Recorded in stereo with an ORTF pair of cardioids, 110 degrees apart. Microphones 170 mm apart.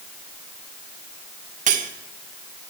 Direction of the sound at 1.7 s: 50° right.